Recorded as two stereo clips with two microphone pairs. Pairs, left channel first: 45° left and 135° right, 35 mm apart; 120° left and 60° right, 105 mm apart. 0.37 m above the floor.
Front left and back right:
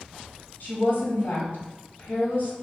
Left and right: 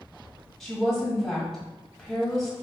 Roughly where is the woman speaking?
Ahead left.